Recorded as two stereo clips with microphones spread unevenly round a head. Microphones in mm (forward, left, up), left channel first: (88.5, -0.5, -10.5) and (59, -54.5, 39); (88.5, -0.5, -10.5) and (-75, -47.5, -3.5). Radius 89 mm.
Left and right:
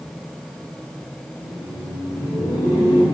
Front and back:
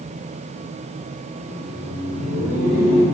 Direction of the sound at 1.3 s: 105° left.